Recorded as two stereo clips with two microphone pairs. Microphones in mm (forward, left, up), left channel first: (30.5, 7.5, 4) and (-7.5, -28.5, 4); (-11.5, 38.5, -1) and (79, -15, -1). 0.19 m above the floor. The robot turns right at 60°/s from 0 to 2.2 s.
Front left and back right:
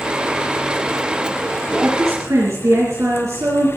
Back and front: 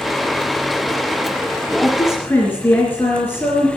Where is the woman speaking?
165° right, 4 m; by 3.7 s 140° right, 4 m.